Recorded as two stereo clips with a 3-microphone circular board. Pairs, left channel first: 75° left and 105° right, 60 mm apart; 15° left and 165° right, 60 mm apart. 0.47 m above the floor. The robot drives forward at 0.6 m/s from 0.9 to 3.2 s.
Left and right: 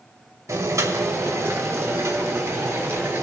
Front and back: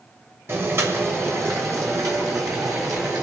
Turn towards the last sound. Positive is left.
turn(degrees=-150)